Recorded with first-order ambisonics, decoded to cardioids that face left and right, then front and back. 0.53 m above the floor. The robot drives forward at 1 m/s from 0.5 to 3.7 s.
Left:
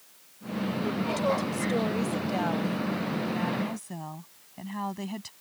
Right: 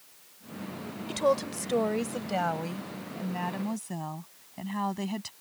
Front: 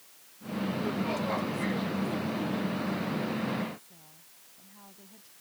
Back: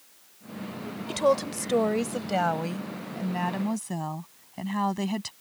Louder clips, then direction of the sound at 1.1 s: Right 3 dB, back 13 dB; 165° right.